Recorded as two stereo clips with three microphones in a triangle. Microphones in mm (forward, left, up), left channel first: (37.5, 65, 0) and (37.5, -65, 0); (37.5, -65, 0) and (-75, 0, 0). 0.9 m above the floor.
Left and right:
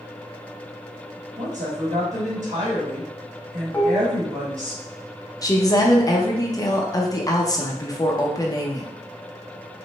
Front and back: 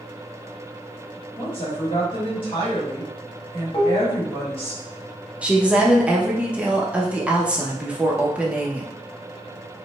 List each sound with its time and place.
1.4 s a woman speaking: 75° right, 1.4 m
3.7 s dishes clattering: 10° left, 0.6 m
5.4 s a woman speaking: 80° left, 0.6 m